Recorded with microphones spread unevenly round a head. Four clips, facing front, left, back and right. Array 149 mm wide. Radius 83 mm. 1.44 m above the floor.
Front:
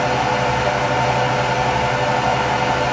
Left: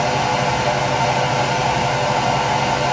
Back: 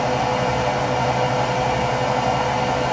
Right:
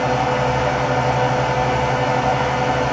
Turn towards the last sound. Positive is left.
turn(degrees=-10)